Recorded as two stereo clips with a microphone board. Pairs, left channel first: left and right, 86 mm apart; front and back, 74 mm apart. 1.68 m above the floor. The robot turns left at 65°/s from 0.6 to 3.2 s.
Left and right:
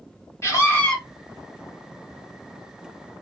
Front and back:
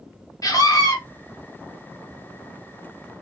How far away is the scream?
About 1.7 m.